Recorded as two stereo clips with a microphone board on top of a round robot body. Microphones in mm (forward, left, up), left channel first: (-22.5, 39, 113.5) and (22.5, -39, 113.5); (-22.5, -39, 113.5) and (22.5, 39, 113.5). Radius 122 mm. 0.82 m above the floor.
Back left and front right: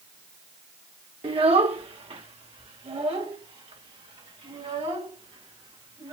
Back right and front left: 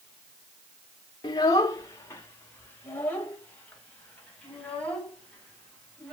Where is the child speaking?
75° right, 1.5 m; by 6.1 s 40° right, 6 m.